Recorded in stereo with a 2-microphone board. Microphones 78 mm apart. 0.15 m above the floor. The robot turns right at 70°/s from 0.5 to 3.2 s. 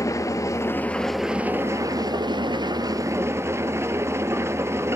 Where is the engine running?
135° left, 0.9 m; by 5.0 s 35° right, 0.9 m.